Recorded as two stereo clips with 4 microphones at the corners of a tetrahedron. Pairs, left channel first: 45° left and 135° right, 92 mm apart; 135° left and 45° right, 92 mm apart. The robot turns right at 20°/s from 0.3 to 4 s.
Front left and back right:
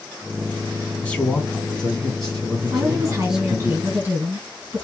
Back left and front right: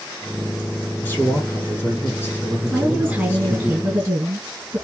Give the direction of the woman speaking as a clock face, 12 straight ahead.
4 o'clock.